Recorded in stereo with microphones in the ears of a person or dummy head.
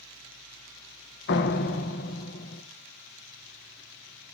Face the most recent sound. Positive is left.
turn(degrees=50)  # may be behind; listen again after turning